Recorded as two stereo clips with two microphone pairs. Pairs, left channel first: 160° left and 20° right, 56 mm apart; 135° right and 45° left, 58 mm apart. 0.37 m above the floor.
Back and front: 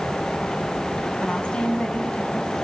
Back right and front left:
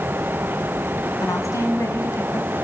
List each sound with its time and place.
1.2 s a woman speaking: 130° right, 3.5 m; by 2.5 s 125° right, 2.5 m